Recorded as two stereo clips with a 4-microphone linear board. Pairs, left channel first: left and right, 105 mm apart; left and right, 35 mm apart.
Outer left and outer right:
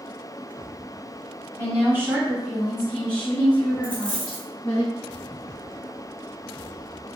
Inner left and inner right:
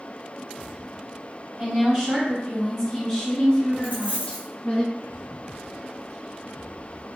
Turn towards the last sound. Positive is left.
turn(degrees=-55)  # may be behind; listen again after turning